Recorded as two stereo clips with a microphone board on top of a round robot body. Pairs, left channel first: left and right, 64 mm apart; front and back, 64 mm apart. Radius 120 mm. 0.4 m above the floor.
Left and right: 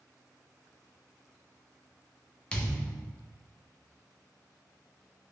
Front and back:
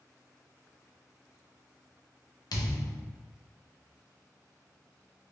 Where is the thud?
15° left, 0.7 m.